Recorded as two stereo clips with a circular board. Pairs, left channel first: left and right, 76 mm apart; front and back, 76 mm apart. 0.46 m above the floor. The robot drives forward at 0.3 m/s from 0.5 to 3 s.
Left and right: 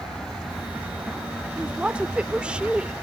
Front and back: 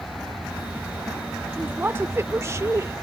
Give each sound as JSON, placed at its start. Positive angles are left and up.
{"t": 1.6, "sound": "a woman speaking", "azimuth_deg": -145}